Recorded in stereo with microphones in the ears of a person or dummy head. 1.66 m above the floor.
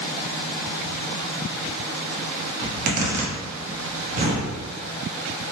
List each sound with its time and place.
2.6 s a zipper: 50° right (ahead or behind), 0.8 m